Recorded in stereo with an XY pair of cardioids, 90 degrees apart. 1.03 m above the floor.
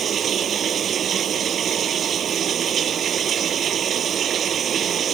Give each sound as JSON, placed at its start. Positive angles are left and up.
{"t": 0.0, "sound": "running water", "azimuth_deg": -60}